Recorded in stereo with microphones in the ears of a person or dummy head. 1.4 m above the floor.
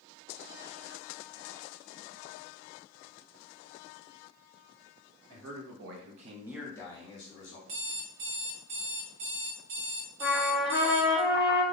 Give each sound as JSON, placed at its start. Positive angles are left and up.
{"t": 5.3, "sound": "a man speaking", "side_deg": -85, "distance_m": 1.7}
{"t": 7.7, "sound": "an alarm clock", "side_deg": -60, "distance_m": 1.1}
{"t": 10.2, "sound": "a trumpet", "side_deg": 0, "distance_m": 2.5}